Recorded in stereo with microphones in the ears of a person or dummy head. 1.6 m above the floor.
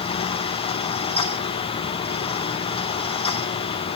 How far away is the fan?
About 1.9 m.